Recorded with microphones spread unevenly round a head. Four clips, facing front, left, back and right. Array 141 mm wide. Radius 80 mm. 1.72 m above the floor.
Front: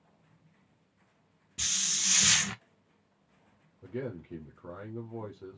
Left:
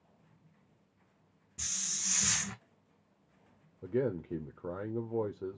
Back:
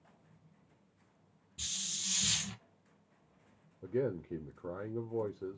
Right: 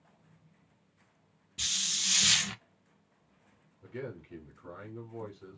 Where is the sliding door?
No sliding door in this recording.